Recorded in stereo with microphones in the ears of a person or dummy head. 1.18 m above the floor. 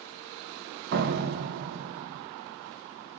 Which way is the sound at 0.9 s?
50° right (ahead or behind).